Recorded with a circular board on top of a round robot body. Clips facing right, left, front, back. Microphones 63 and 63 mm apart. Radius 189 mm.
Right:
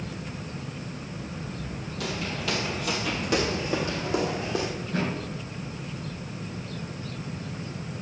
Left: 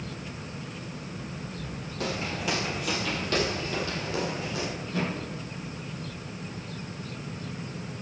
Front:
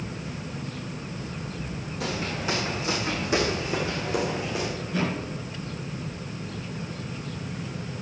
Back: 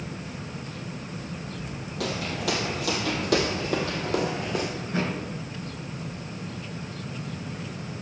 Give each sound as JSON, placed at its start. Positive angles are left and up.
{"t": 2.0, "sound": "footsteps", "azimuth_deg": 145, "distance_m": 1.3}
{"t": 4.8, "sound": "a thud", "azimuth_deg": -140, "distance_m": 5.0}